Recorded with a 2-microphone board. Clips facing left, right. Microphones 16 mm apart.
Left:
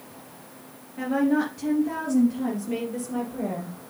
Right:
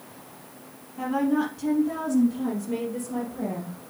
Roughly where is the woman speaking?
Left.